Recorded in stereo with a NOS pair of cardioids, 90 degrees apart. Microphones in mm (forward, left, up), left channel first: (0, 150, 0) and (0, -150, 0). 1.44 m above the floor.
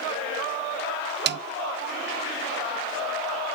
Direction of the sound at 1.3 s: 40° right.